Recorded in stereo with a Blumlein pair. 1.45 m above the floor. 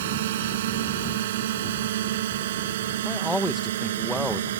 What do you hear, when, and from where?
0.0 s a drone: 55° right; by 4.6 s 60° right
3.0 s a man speaking: straight ahead